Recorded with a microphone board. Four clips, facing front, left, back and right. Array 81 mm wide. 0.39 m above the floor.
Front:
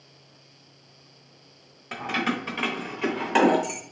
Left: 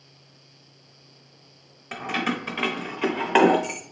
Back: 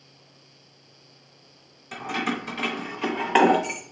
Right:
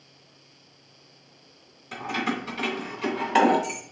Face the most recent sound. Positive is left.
turn(degrees=130)